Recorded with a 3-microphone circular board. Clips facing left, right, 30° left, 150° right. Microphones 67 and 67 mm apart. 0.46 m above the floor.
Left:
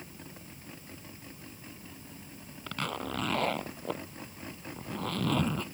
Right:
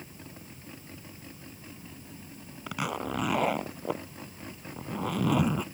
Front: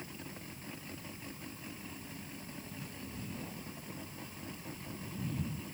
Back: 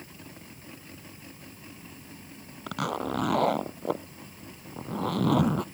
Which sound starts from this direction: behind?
A zipper, at 2.7 s.